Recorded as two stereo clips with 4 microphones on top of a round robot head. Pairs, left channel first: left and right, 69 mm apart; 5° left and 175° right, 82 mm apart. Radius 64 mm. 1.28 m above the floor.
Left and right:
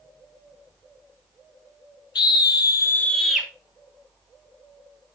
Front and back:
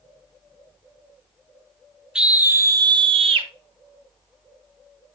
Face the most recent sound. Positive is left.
turn(degrees=-170)